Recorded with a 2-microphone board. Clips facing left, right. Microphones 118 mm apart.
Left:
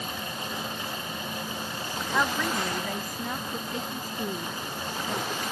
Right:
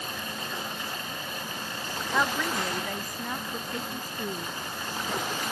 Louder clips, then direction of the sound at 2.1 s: Even; centre (ahead or behind).